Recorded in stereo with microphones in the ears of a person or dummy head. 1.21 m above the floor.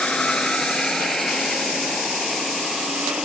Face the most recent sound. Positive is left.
turn(degrees=-5)  # may be behind; listen again after turning